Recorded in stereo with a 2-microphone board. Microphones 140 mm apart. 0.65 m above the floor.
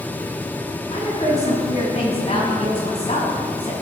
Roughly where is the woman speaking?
Left.